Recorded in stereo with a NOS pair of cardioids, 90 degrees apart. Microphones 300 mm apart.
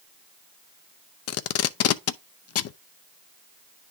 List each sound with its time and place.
1.3 s tape being pulled: 55° left, 0.6 m